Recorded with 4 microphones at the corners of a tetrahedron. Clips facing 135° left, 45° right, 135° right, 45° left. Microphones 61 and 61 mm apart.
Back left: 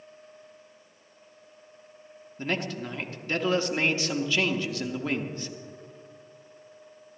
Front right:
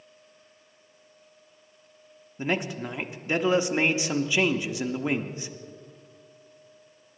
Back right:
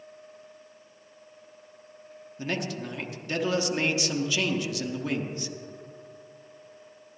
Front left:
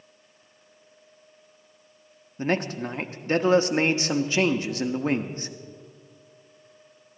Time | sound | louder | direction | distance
2.4 | a man speaking | front right 2 dB, front left 6 dB | 20° left | 0.7 m